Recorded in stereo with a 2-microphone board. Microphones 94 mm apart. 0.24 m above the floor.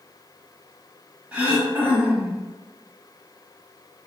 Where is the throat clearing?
15° right (ahead or behind), 0.6 m.